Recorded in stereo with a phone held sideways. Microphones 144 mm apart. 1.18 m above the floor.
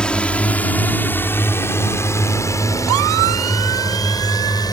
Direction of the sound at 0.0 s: 5° left (ahead or behind).